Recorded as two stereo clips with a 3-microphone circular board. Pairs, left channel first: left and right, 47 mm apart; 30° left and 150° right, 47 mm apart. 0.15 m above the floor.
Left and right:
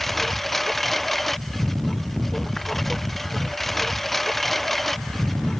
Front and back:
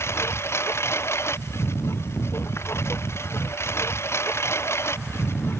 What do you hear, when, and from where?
0.0 s a lawn mower: 5° left